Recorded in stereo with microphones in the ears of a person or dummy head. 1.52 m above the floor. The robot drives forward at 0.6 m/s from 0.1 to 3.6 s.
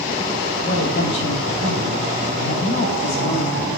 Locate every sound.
0.6 s a woman speaking: 40° left (ahead or behind), 7 m; by 3.7 s 35° left (ahead or behind), 8.5 m